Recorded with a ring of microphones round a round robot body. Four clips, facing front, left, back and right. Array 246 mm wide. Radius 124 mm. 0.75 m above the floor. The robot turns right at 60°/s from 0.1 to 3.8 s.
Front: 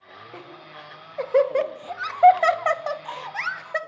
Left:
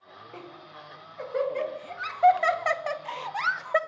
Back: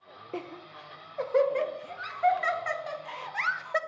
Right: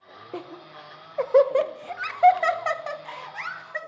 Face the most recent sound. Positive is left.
turn(degrees=80)